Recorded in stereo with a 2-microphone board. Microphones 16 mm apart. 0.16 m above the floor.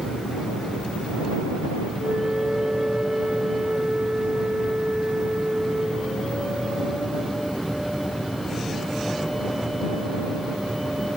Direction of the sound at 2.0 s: 60° right (ahead or behind).